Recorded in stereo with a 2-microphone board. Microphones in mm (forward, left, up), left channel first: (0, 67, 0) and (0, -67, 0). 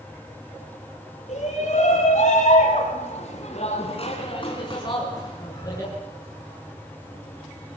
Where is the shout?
60° left (ahead or behind), 4.5 m; by 5.9 s 20° left (ahead or behind), 5.5 m.